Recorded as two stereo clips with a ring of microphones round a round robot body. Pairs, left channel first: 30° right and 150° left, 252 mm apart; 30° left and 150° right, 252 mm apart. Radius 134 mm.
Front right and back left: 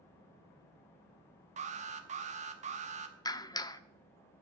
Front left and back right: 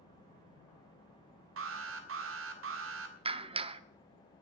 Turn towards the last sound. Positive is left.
turn(degrees=-95)